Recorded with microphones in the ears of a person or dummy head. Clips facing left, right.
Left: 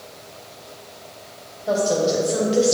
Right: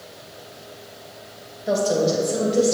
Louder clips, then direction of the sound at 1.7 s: Even; 15° right (ahead or behind).